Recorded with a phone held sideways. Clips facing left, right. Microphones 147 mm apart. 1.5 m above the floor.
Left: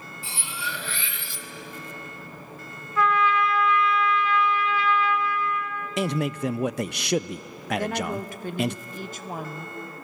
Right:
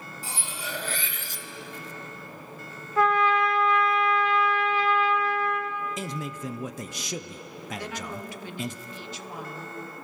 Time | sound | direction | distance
0.2 | cutlery clinking | 45° right (ahead or behind) | 1.1 m
3.0 | a trumpet | 45° right (ahead or behind) | 1.8 m
6.0 | a man speaking | 70° left (ahead or behind) | 0.5 m
7.8 | a woman speaking | 50° left (ahead or behind) | 1.2 m